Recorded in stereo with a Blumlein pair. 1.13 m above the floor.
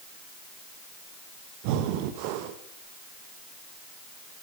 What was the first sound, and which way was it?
Breathing, 45° right.